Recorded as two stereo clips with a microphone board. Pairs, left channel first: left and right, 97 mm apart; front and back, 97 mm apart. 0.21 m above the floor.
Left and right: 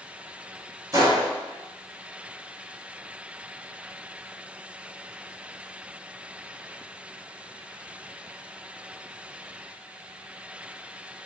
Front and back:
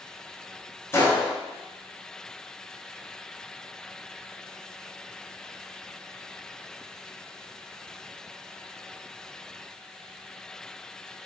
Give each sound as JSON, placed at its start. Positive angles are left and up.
{"t": 0.9, "sound": "a gunshot", "azimuth_deg": -50, "distance_m": 1.0}